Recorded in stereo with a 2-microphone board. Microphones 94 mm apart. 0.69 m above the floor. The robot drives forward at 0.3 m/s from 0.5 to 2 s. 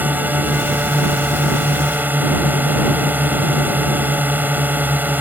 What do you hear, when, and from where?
0.0 s a drone: 20° right (ahead or behind)